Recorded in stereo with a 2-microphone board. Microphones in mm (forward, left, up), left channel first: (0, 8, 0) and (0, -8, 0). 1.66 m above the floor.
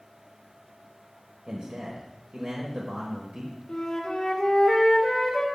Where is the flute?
45° left (ahead or behind), 1.6 m.